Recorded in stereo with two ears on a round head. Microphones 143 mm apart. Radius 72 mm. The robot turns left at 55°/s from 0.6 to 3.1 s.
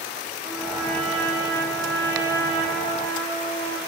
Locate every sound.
0.4 s a trumpet: 15° right, 6 m; by 3.8 s 150° right, 6 m